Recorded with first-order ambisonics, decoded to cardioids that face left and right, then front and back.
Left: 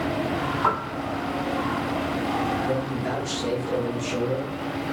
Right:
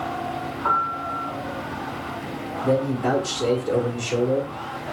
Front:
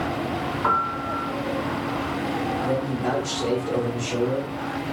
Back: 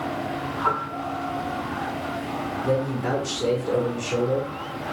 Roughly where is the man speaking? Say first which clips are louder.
Right 4 dB, even; right.